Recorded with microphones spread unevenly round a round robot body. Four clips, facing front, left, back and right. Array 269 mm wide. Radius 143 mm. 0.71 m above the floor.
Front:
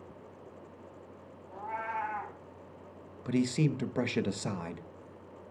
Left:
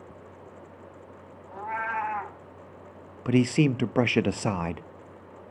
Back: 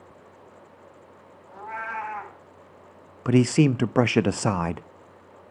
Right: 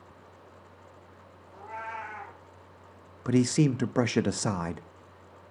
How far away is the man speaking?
About 0.5 m.